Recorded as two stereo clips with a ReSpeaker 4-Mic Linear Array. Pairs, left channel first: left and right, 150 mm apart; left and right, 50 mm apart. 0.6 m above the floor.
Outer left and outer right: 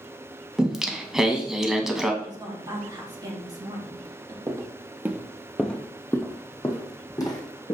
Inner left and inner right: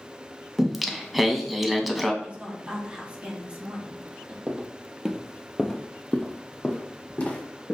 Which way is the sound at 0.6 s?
Centre (ahead or behind).